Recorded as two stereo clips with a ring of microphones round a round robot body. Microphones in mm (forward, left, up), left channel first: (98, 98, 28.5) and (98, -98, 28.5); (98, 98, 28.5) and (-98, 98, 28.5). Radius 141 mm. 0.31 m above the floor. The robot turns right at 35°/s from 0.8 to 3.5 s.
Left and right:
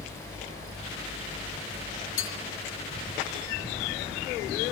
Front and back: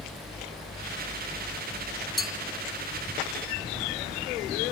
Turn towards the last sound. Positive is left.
turn(degrees=135)